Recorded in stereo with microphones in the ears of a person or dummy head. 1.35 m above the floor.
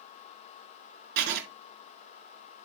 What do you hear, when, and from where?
1.2 s writing: 65° right (ahead or behind), 1.5 m